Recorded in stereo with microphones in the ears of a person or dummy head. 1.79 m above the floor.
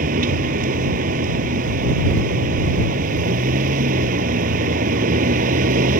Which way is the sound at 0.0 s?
45° right (ahead or behind).